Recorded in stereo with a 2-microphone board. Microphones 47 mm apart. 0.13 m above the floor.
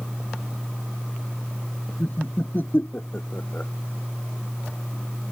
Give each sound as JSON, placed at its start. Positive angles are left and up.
{"t": 2.0, "sound": "laughter", "side_deg": 45}